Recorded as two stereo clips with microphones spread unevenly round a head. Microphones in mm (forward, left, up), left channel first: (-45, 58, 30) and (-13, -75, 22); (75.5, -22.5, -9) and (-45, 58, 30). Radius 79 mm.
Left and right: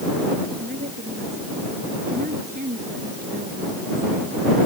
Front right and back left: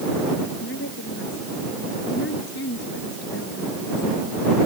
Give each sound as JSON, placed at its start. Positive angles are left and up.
{"t": 0.6, "sound": "a woman speaking", "azimuth_deg": -30}